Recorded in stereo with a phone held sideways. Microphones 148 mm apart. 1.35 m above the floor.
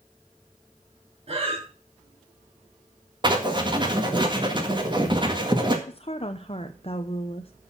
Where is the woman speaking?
40° left (ahead or behind), 0.7 m.